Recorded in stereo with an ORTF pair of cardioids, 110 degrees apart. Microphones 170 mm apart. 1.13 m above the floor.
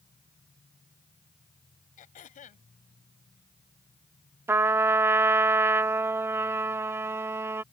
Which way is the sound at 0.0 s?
25° left.